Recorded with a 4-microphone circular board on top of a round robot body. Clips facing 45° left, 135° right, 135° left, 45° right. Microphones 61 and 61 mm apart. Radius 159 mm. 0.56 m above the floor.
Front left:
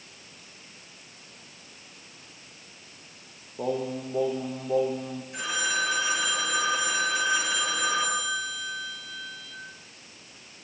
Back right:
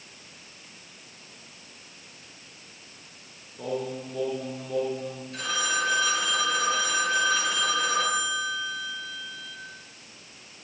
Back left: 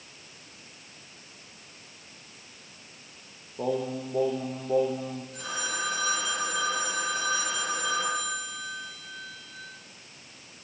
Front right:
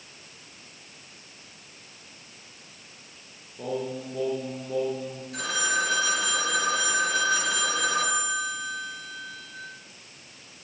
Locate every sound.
3.6 s singing: 95° left, 5.5 m
5.3 s a phone ringing: 30° right, 10 m